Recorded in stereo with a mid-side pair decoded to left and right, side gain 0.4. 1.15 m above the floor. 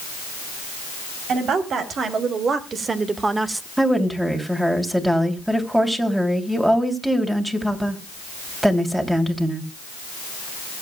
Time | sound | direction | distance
1.3 | a woman speaking | 65° right | 4 m
3.8 | a woman speaking | 10° right | 3 m